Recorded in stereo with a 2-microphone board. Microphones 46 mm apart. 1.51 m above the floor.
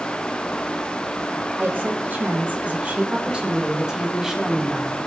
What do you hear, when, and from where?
1.6 s a woman speaking: 45° right (ahead or behind), 3 m; by 5.1 s centre (ahead or behind), 3 m